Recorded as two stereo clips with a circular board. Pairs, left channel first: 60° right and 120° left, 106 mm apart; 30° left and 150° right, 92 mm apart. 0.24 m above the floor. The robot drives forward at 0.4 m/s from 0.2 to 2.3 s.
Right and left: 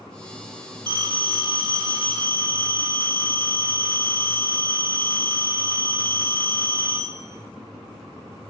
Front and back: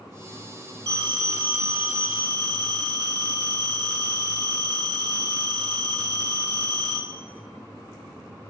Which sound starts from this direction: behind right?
A phone ringing, at 0.9 s.